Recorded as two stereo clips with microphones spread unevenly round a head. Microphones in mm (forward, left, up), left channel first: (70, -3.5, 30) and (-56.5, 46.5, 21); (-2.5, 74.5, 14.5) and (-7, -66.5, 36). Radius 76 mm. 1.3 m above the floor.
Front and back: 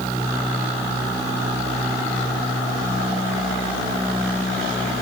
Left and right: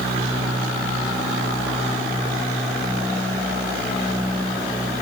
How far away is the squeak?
I don't hear a squeak.